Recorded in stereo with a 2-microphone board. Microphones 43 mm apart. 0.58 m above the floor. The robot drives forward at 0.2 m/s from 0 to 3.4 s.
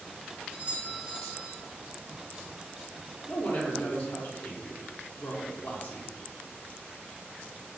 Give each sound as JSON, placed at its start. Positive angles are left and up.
{"t": 0.5, "sound": "a doorbell", "side_deg": -40, "distance_m": 1.4}
{"t": 3.3, "sound": "a woman speaking", "side_deg": 50, "distance_m": 0.8}